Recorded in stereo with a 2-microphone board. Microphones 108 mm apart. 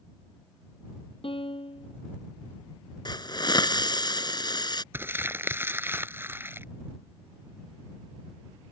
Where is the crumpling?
20° right (ahead or behind).